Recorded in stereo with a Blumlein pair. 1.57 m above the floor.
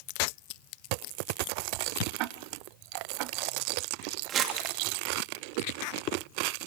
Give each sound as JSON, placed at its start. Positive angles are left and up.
{"t": 2.2, "sound": "ticking", "azimuth_deg": -40, "distance_m": 0.7}
{"t": 4.3, "sound": "crumpling", "azimuth_deg": -30, "distance_m": 2.5}